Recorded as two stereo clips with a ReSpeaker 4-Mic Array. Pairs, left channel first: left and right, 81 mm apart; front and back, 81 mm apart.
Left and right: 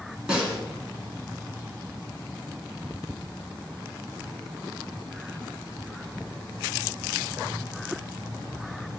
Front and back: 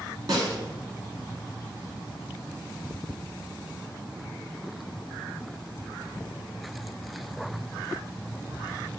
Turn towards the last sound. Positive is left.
turn(degrees=-170)